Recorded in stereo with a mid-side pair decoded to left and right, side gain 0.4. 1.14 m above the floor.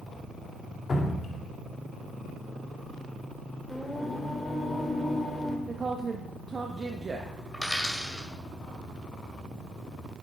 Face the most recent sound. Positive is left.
turn(degrees=10)